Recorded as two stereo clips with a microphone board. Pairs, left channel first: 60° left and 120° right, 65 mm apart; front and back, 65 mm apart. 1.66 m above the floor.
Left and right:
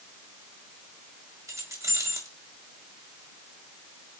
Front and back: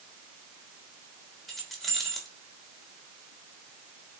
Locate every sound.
1.5 s keys jangling: 90° right, 3 m